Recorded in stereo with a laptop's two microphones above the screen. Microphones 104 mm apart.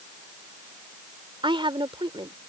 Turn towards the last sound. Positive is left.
turn(degrees=-55)  # may be behind; listen again after turning